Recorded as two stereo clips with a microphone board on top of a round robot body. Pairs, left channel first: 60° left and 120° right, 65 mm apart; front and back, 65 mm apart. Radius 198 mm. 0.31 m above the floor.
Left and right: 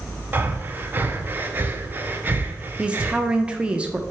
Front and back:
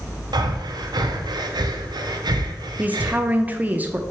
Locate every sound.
0.3 s breathing: 175° left, 0.8 m
2.8 s a woman speaking: 170° right, 0.9 m